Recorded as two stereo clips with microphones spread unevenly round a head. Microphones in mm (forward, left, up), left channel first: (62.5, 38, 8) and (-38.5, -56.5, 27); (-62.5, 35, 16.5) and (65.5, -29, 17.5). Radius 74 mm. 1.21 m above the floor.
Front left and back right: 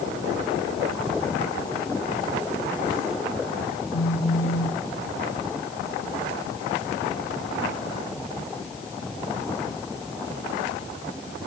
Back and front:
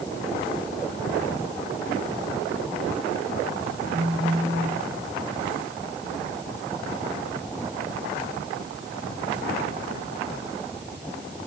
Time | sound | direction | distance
3.9 | a phone buzzing | 50° left | 5.5 m